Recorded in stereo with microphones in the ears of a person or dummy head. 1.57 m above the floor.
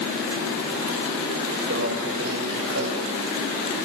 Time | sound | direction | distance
1.7 | a microwave | 55° right (ahead or behind) | 7 m